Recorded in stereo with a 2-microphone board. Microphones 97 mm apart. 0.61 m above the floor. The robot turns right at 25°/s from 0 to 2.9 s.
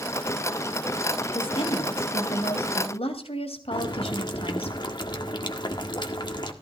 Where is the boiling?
45° left (ahead or behind), 1.6 m.